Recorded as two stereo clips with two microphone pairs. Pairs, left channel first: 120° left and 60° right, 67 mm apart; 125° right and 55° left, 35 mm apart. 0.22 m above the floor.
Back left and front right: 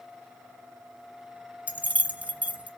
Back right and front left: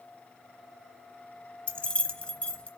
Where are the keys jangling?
100° right, 0.9 m.